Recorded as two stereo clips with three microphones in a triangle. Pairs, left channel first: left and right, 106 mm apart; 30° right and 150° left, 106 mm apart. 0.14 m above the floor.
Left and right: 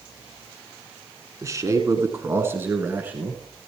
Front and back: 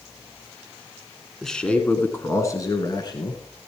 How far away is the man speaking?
About 1.5 m.